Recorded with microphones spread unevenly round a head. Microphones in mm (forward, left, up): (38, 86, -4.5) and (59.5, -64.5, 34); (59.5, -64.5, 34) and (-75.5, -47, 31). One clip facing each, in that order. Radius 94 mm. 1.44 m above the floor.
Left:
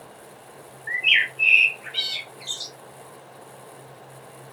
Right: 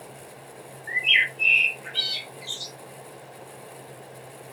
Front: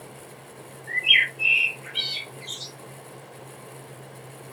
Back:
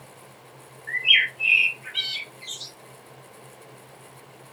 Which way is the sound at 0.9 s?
70° left.